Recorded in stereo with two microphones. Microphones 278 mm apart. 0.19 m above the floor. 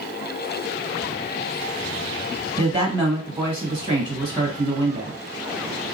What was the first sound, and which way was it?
A woman speaking, 20° right (ahead or behind).